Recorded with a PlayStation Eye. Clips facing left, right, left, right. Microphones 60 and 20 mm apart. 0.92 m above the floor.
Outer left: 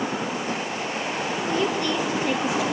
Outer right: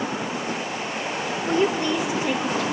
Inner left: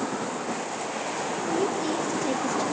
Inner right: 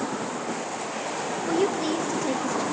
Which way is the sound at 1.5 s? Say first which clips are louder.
Outer right 4 dB, inner right 3 dB; 35° right (ahead or behind).